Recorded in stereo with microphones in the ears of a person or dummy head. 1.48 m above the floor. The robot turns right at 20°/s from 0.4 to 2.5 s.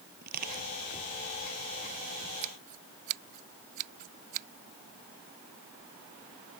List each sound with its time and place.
0.2 s crushing: 45° right (ahead or behind); by 0.7 s 55° right (ahead or behind)
2.4 s scissors: 30° right (ahead or behind); by 4.5 s 35° right (ahead or behind)